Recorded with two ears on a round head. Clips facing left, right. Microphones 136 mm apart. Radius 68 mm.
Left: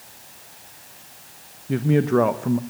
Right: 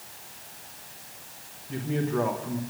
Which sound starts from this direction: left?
A man speaking, at 1.7 s.